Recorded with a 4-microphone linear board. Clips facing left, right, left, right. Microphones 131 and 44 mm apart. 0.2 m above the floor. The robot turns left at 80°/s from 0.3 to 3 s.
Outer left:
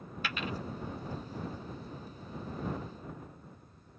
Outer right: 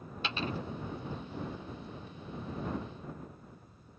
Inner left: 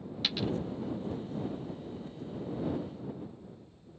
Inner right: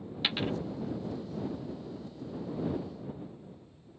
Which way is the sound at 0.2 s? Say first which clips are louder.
Outer right 2 dB, inner right 1 dB; 25° right (ahead or behind).